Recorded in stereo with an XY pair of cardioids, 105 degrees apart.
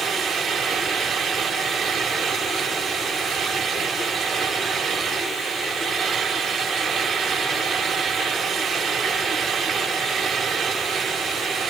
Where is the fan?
45° right, 5 m.